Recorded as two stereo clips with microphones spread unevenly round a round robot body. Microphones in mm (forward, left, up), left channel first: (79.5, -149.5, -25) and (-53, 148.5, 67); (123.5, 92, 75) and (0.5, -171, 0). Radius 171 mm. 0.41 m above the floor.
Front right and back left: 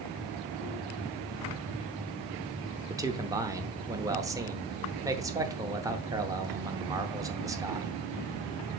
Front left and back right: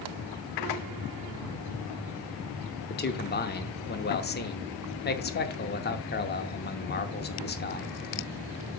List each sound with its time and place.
2.9 s a man speaking: 15° left, 0.9 m